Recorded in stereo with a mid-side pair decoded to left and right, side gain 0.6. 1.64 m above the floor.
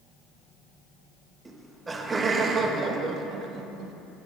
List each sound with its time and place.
1.4 s laughter: 15° right, 1.6 m; by 3.9 s 70° right, 1.1 m